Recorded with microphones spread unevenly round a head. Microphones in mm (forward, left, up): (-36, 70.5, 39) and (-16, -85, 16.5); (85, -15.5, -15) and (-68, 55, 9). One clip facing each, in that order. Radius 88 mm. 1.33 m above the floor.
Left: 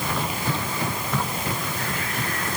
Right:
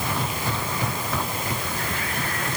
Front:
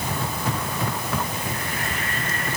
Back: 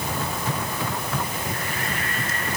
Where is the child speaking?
I don't hear a child speaking.